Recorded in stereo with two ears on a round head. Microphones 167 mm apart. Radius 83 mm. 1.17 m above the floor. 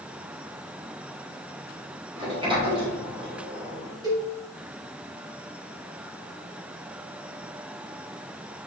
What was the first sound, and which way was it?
A sliding door, 30° right (ahead or behind).